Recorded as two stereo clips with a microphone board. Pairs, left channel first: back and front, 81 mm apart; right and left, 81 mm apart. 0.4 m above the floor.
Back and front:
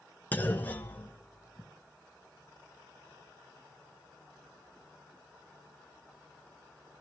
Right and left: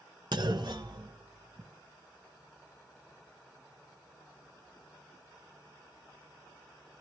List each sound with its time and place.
0.3 s a clunk: 115° left, 1.2 m